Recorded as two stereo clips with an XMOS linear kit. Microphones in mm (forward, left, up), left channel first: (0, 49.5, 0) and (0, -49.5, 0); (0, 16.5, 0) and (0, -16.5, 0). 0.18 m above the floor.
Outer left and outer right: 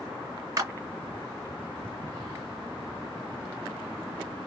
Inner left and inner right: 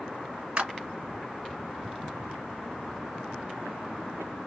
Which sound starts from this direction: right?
A clap, at 0.6 s.